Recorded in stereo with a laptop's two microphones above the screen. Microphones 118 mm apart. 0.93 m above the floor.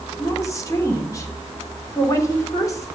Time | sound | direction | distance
0.2 | a woman speaking | 30° left (ahead or behind) | 3 m